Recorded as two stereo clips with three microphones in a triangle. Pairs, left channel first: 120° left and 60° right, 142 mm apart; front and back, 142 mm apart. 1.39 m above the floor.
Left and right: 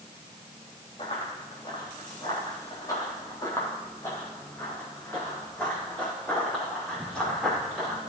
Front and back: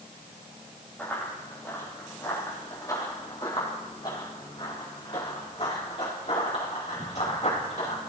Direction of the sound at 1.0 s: 80° left.